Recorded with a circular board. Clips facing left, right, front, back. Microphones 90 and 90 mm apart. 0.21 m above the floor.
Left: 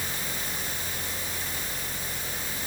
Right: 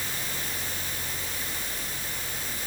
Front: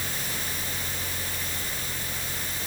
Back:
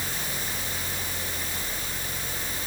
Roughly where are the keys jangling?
No keys jangling in this recording.